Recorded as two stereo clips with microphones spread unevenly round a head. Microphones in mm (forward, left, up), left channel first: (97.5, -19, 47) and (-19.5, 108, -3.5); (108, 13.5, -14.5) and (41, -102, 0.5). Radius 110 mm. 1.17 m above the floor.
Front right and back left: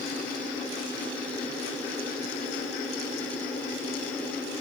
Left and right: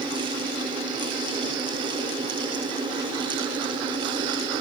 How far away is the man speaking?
No man speaking in this recording.